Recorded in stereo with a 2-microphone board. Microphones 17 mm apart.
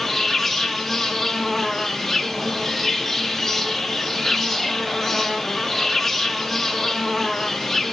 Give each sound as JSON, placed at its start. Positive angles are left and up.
{"t": 0.0, "sound": "an insect", "side_deg": 5, "distance_m": 2.5}